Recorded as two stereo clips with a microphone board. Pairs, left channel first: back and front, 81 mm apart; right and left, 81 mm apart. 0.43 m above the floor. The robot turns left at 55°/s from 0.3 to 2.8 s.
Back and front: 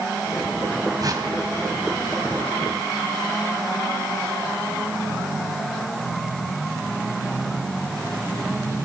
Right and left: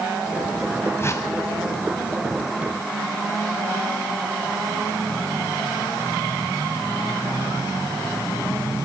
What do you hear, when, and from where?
1.0 s a whoosh: 30° right, 2.5 m; by 1.3 s 50° right, 2.5 m